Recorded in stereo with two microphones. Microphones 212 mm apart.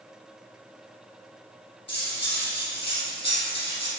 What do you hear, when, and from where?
1.9 s cutlery clinking: 55° left (ahead or behind), 1.9 m